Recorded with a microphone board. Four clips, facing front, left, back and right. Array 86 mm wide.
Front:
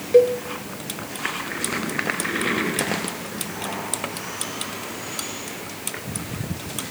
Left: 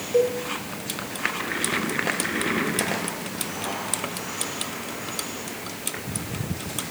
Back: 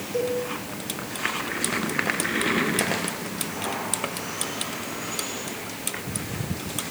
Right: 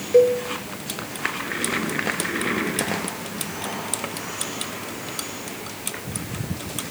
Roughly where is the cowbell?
Ahead right.